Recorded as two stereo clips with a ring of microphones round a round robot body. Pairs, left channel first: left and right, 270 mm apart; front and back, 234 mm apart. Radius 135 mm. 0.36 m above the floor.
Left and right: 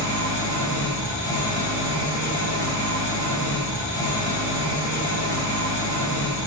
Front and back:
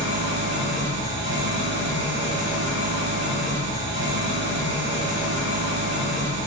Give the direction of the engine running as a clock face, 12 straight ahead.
8 o'clock.